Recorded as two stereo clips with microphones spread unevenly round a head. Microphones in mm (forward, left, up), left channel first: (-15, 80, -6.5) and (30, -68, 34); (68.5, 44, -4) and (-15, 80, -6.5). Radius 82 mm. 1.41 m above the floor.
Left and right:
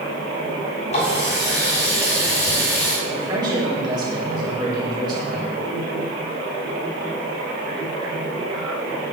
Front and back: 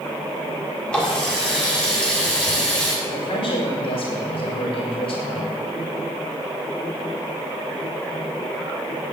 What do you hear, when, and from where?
0.9 s a running tap: 55° left, 7 m
3.0 s a man speaking: 10° right, 5 m